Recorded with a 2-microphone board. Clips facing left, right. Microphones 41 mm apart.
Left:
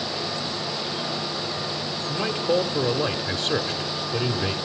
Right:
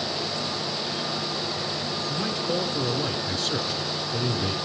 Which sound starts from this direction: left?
A man speaking, at 2.1 s.